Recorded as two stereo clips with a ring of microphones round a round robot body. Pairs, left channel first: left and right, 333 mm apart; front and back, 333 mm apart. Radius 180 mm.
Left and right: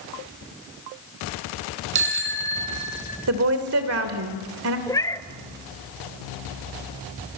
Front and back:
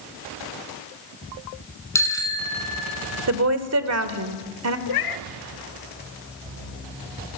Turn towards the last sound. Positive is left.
turn(degrees=10)